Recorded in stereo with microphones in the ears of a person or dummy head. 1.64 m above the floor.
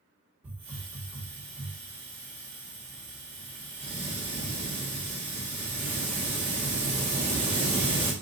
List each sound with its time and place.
0.4 s a hiss: 10° right (ahead or behind), 1.4 m